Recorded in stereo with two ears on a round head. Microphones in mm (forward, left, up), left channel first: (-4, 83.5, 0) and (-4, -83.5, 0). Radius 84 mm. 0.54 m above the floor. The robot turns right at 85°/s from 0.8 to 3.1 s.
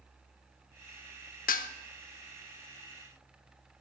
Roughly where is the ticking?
I don't hear ticking.